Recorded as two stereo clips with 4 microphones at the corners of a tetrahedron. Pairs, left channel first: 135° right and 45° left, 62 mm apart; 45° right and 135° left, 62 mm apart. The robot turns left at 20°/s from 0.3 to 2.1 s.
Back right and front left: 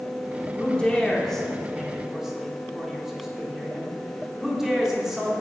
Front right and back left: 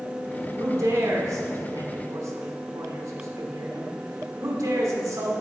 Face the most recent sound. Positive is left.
turn(degrees=125)